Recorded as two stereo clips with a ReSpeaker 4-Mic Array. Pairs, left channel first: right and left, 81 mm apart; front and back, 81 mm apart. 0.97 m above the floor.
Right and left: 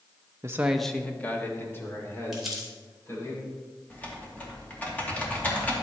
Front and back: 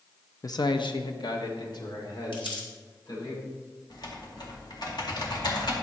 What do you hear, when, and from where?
0.4 s a man speaking: 40° left, 0.6 m; by 3.3 s 35° right, 4 m
2.3 s crumpling: straight ahead, 3 m
3.9 s typing on a keyboard: 20° right, 2 m